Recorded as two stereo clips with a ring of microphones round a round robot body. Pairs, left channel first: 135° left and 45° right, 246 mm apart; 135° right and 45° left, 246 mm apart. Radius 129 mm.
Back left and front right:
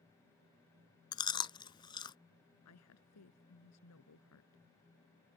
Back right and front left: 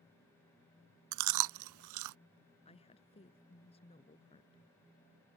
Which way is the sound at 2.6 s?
160° left.